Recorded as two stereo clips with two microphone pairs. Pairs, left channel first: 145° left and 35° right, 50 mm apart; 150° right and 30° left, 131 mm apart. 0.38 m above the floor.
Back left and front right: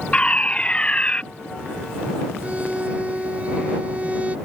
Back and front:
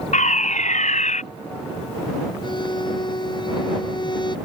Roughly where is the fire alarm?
Behind right.